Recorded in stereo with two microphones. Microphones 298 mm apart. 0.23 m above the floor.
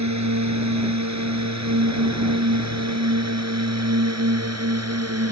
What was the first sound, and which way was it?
A drone, 65° right (ahead or behind).